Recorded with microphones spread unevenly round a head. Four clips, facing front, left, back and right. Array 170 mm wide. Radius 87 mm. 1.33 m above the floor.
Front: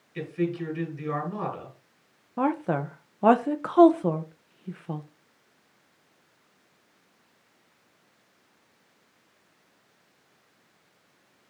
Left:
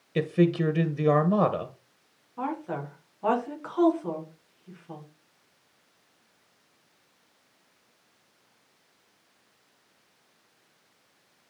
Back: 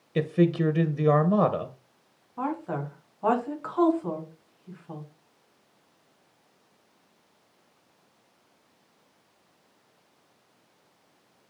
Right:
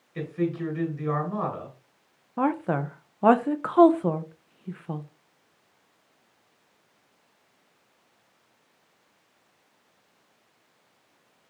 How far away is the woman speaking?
About 1.2 m.